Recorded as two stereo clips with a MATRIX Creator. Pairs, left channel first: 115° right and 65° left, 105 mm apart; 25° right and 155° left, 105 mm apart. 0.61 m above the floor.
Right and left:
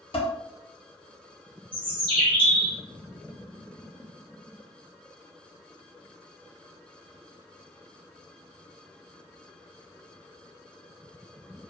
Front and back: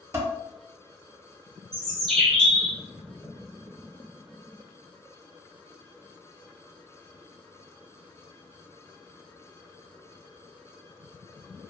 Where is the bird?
60° left, 1.0 m.